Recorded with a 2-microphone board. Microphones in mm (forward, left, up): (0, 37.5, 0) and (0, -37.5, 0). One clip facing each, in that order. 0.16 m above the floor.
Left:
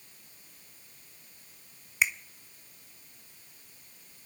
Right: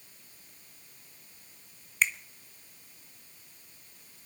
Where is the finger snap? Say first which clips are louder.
Even; 10° left (ahead or behind), 0.9 m.